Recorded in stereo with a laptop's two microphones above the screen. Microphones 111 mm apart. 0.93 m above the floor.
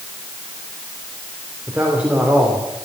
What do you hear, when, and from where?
1.7 s a man speaking: 10° right (ahead or behind), 2.5 m